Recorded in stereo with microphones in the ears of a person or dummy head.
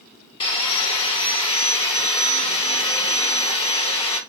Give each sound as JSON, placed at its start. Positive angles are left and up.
{"t": 0.4, "sound": "sawing", "side_deg": 35, "distance_m": 0.9}